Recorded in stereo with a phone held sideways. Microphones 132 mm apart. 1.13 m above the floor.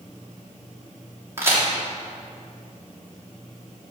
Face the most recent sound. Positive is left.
turn(degrees=-20)  # may be behind; listen again after turning